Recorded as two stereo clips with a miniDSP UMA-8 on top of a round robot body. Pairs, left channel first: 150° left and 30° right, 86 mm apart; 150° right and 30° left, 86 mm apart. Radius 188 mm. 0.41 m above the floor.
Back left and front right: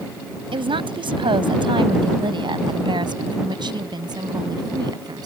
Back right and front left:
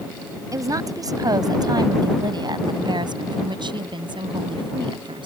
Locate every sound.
0.5 s a woman speaking: 20° right; by 5.3 s 5° left